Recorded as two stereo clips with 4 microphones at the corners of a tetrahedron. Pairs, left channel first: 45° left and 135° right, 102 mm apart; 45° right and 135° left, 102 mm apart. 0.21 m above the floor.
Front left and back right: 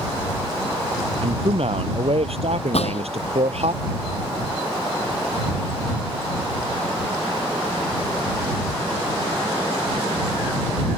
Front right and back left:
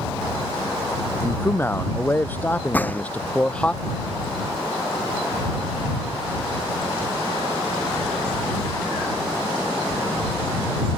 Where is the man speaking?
110° right; by 3.7 s 125° right.